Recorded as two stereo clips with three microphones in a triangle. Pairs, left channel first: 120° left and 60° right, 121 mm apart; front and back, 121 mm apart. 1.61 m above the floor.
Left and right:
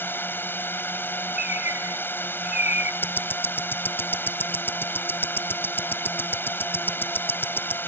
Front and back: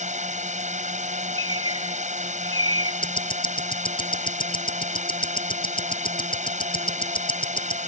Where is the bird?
130° left.